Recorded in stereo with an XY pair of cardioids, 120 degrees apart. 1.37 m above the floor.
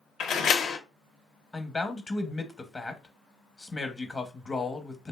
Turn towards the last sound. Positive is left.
turn(degrees=20)